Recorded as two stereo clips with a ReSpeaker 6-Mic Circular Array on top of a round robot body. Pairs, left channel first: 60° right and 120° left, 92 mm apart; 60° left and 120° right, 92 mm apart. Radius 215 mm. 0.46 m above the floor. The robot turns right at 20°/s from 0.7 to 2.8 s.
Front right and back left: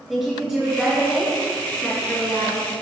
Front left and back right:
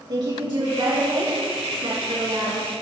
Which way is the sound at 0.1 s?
155° right.